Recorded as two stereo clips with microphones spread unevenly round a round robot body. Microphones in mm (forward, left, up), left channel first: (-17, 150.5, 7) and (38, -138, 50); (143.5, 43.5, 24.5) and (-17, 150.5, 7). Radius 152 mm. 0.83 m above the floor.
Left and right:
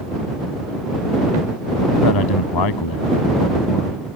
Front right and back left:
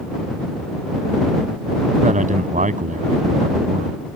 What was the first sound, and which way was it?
A man speaking, 95° left.